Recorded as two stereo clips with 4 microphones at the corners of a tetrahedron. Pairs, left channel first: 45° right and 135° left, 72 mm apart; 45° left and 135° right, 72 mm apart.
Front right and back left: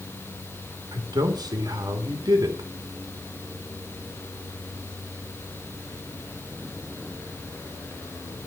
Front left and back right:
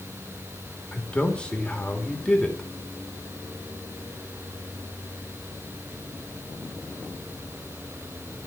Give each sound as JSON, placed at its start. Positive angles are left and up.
{"t": 0.9, "sound": "a man speaking", "azimuth_deg": 120, "distance_m": 3.0}